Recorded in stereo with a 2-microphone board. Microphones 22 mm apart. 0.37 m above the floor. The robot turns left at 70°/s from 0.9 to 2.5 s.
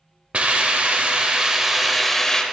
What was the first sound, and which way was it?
A hiss, 100° right.